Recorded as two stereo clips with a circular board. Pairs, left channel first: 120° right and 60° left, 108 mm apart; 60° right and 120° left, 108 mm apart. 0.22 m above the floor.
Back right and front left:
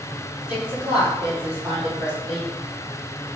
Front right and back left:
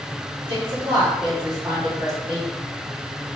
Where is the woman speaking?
135° left, 1.7 m; by 2.5 s 70° left, 1.4 m.